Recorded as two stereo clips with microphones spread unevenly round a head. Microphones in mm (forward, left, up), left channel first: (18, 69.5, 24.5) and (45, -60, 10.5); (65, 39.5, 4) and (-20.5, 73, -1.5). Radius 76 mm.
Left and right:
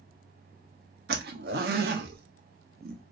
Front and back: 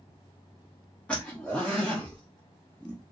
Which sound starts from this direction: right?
A zipper, at 1.1 s.